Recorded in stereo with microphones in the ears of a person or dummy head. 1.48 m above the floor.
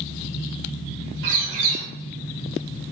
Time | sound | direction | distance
1.2 | a bird | 70° right (ahead or behind) | 5.5 m